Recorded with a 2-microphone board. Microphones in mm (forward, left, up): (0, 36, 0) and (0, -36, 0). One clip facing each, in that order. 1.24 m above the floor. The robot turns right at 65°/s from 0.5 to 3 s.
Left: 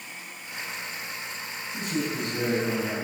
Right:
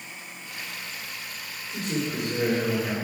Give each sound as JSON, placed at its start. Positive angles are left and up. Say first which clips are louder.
{"t": 1.7, "sound": "a man speaking", "louder": "right 1 dB", "azimuth_deg": -110, "distance_m": 4.0}